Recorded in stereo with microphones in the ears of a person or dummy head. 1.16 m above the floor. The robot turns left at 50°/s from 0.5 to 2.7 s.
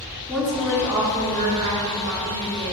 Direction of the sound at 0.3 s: 5° right.